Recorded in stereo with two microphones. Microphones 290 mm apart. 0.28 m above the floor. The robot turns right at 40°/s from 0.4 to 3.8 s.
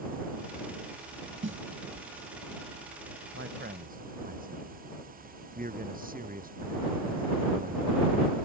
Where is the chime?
No chime in this recording.